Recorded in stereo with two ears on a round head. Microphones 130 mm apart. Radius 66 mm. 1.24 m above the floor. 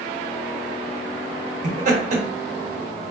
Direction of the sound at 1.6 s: 55° right (ahead or behind).